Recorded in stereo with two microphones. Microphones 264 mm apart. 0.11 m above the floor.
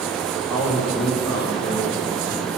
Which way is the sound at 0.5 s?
15° left (ahead or behind).